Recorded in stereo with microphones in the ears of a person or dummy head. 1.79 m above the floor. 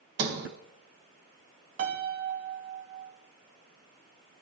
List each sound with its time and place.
0.2 s a sliding door: 55° right (ahead or behind), 1.5 m
1.8 s a piano: 65° right (ahead or behind), 1.2 m